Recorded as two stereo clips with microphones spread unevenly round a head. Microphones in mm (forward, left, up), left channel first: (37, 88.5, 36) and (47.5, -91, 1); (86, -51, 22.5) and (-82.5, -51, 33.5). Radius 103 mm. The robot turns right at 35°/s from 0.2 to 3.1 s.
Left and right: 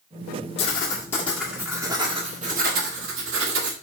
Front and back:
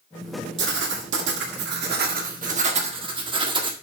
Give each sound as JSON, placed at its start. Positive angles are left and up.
{"t": 0.6, "sound": "writing", "azimuth_deg": 150, "distance_m": 1.6}